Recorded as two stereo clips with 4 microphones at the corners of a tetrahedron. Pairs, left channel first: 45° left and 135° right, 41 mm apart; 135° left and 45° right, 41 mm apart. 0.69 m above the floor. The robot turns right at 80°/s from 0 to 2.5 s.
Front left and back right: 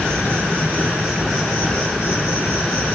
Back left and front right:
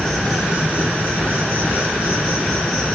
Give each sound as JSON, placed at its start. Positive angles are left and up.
{"t": 0.0, "sound": "an insect", "azimuth_deg": -145, "distance_m": 3.5}